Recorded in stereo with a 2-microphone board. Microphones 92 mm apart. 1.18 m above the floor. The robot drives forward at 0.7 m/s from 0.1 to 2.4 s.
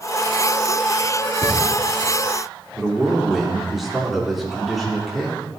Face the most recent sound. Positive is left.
turn(degrees=0)  # may be behind; listen again after turning